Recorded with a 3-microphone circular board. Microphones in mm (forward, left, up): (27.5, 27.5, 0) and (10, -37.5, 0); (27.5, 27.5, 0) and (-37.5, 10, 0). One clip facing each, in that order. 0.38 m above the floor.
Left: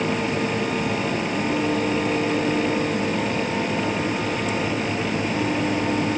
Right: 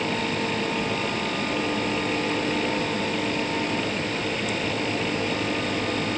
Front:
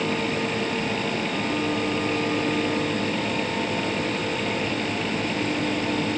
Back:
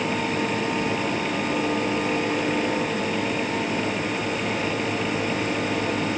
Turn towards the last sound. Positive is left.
No sound to turn to.